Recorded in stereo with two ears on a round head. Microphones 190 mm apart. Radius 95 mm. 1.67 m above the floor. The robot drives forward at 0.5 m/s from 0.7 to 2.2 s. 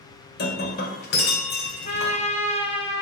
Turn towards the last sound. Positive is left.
turn(degrees=30)  # may be behind; listen again after turning